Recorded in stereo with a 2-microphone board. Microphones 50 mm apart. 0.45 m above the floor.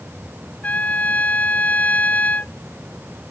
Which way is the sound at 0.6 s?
30° left (ahead or behind).